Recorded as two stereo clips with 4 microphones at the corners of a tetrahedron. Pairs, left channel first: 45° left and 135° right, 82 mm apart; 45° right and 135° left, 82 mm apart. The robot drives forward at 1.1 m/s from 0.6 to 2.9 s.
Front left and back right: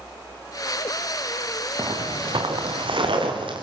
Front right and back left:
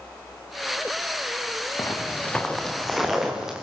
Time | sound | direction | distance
1.8 | footsteps | 95° right | 2.5 m